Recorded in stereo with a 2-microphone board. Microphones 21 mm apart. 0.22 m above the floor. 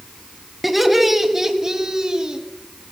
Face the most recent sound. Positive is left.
turn(degrees=-35)  # may be behind; listen again after turning